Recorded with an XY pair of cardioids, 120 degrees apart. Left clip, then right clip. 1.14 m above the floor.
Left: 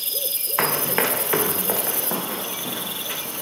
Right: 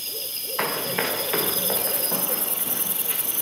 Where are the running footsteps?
70° left, 4 m.